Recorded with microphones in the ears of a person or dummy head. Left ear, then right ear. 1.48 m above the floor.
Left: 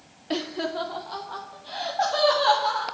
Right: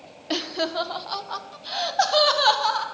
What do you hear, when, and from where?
0.3 s laughter: 20° right (ahead or behind), 0.8 m; by 2.8 s 50° right (ahead or behind), 3 m